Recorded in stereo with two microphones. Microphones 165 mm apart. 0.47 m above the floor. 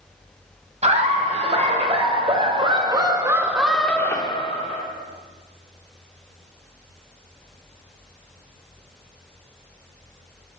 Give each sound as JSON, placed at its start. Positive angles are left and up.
{"t": 0.8, "sound": "laughter", "side_deg": -45, "distance_m": 2.5}